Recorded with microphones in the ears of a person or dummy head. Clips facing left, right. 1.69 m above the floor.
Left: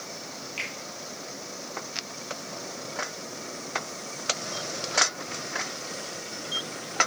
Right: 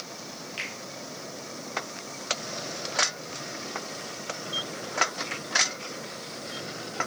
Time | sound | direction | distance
0.6 | a finger snap | centre (ahead or behind) | 1.8 m